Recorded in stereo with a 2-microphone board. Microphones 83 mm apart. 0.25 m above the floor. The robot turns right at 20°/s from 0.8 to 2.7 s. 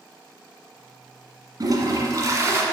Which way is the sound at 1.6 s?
50° right (ahead or behind).